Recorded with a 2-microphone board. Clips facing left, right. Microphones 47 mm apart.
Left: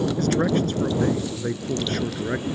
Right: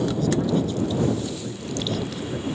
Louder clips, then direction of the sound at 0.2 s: Left 2 dB; 60° left (ahead or behind).